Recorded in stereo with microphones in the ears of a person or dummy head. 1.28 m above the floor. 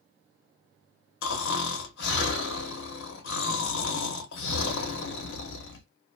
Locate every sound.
1.2 s snoring: 75° left (ahead or behind), 0.9 m